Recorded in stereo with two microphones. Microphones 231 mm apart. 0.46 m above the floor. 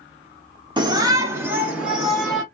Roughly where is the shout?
Centre.